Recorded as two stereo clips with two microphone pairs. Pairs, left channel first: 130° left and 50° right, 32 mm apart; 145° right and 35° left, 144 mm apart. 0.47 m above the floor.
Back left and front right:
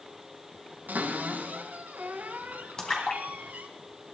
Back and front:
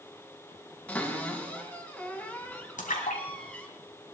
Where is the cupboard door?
65° right, 4 m.